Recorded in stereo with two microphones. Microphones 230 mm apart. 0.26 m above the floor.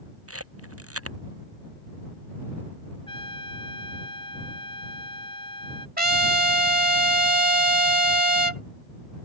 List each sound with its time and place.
0.3 s a camera shutter: 80° right
3.1 s a trumpet: 20° left (ahead or behind)
6.0 s a trumpet: 40° right (ahead or behind)